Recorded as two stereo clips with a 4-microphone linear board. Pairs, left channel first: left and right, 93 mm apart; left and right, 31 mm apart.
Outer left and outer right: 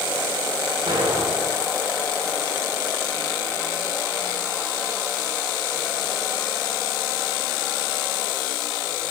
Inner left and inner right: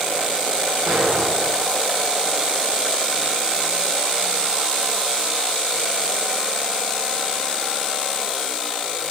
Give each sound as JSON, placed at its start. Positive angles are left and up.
{"t": 0.9, "sound": "an explosion", "side_deg": -70, "distance_m": 9.0}